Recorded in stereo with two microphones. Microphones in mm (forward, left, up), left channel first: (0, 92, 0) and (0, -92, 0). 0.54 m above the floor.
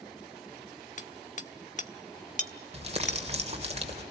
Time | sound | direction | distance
1.0 | hammering | 45° left (ahead or behind) | 1.1 m
2.7 | crumpling | 35° right (ahead or behind) | 2.5 m